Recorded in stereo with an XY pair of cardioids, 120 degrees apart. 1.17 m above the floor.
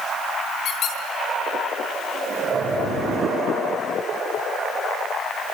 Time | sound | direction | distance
0.7 | a squeak | 55° left | 7.5 m